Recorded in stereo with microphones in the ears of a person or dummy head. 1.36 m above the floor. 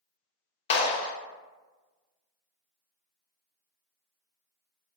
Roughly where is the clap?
Left.